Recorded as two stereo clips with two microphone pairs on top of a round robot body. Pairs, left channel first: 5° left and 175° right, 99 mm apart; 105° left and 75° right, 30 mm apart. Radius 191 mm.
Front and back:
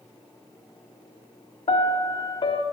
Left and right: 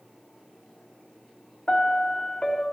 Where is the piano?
40° left, 0.5 m.